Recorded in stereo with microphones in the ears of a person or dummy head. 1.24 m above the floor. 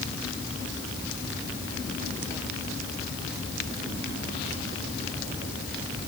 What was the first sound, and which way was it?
Only background noise.